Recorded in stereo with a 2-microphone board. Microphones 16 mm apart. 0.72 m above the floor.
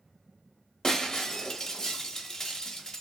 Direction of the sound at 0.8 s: 50° left (ahead or behind).